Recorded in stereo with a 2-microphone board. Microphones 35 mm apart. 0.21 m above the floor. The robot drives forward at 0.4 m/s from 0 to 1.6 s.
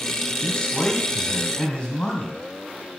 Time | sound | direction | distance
0.4 | a man speaking | 25° left (ahead or behind) | 1.7 m